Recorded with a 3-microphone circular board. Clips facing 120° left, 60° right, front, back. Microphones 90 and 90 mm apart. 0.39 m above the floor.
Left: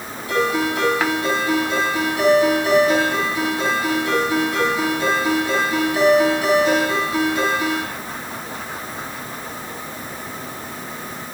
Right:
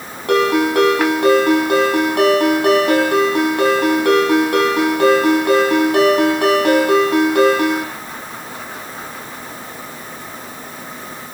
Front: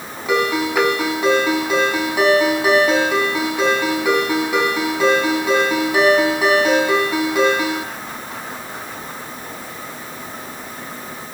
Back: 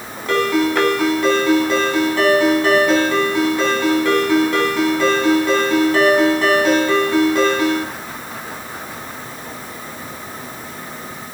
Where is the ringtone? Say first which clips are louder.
Right 6 dB, back 2 dB; 85° right, 9 m.